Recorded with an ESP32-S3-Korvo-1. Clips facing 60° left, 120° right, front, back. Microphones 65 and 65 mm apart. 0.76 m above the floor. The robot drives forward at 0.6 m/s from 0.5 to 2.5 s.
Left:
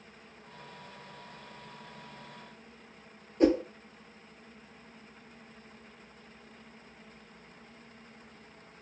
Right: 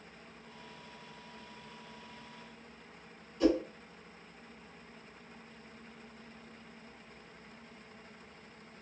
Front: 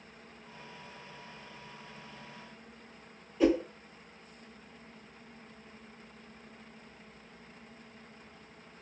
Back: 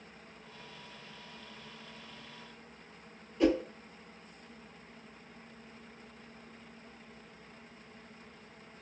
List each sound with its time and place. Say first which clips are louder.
3.4 s a whoosh: left 4 dB, front 1 dB; 90° left, 1.7 m